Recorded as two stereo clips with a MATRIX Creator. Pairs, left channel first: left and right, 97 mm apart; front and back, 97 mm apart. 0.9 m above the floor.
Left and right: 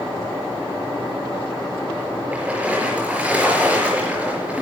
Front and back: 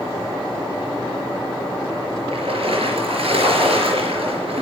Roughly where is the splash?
Behind.